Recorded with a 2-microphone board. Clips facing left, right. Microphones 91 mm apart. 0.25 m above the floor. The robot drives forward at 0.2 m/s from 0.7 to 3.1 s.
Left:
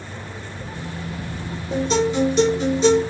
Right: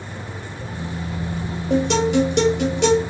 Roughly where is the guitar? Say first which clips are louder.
Right 2 dB; right.